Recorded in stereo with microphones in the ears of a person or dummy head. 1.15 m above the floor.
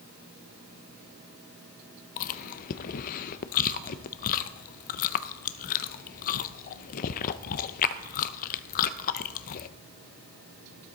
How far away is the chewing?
About 0.5 m.